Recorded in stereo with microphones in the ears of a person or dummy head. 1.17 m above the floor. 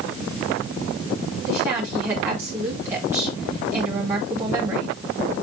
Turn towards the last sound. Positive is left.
turn(degrees=-20)  # may be behind; listen again after turning